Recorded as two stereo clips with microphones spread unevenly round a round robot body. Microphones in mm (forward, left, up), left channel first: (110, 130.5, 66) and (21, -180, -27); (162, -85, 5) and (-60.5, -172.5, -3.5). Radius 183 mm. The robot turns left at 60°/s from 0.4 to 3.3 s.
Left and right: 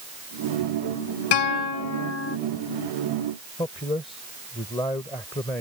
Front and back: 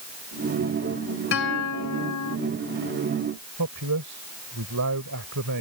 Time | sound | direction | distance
1.3 | a guitar | 80° left | ?
3.6 | a man speaking | 155° left | ?